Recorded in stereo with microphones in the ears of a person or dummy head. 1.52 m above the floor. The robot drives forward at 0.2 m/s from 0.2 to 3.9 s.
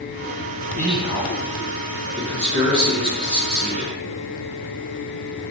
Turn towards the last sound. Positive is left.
turn(degrees=-20)  # may be behind; listen again after turning